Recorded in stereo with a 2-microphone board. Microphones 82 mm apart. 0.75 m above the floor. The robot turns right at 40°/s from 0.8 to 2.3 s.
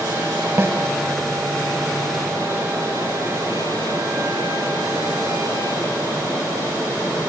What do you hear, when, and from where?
0.6 s a snare drum: 30° right (ahead or behind), 1.6 m